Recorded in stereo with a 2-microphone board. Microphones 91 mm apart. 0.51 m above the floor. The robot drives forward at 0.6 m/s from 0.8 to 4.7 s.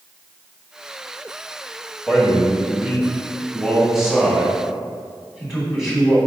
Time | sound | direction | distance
2.1 | a man speaking | 10° right (ahead or behind) | 1.9 m